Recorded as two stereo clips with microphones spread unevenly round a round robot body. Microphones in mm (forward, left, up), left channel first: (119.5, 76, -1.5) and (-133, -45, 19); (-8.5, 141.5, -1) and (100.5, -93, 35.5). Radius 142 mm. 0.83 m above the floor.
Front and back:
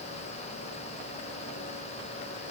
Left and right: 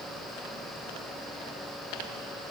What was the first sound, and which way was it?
Only background noise.